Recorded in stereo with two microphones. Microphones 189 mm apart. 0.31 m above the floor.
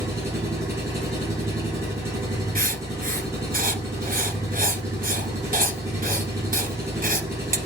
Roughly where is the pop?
No pop in this recording.